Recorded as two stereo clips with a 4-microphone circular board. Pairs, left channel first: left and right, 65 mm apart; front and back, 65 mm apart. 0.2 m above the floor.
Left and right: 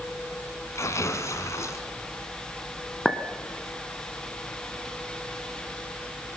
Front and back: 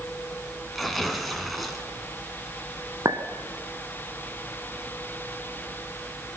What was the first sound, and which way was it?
Tearing paper, 85° left.